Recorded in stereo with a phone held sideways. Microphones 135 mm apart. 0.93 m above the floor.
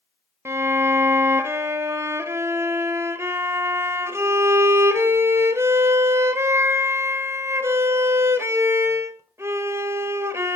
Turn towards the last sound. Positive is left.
turn(degrees=-20)  # may be behind; listen again after turning